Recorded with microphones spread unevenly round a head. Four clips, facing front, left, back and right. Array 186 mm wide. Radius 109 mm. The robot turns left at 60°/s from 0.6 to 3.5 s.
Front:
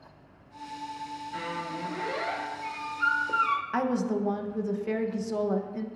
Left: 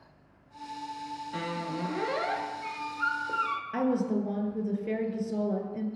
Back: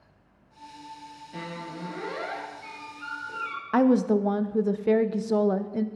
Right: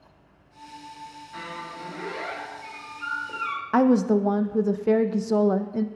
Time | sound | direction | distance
1.3 | a squeak | 135° left | 1.2 m
3.7 | a woman speaking | 85° right | 0.6 m